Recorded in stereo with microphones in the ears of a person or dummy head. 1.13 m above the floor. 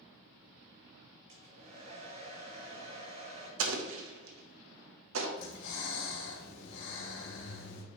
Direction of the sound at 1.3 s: 50° right (ahead or behind).